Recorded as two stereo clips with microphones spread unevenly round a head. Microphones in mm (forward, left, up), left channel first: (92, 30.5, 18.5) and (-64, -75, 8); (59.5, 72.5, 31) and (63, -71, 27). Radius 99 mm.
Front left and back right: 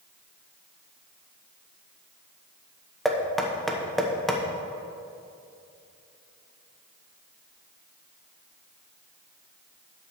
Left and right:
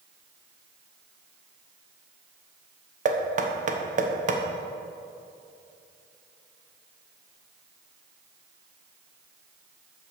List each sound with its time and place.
3.0 s knocking: 55° right, 1.1 m